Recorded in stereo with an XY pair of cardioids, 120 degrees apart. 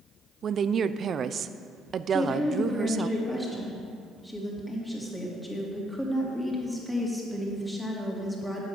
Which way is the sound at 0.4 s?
40° right.